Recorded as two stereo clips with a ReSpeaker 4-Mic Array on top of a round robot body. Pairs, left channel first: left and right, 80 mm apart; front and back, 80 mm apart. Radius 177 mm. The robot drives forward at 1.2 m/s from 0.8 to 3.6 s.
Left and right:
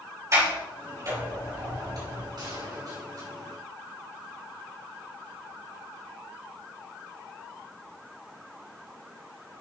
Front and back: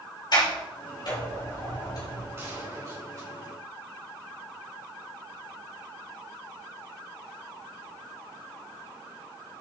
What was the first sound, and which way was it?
A sliding door, 35° right.